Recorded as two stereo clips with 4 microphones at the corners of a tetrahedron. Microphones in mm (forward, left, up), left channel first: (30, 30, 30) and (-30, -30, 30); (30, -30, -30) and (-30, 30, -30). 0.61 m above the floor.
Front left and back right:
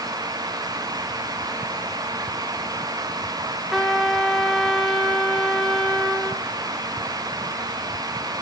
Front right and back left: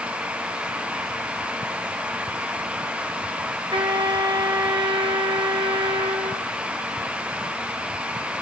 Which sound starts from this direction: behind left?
A trumpet, at 3.7 s.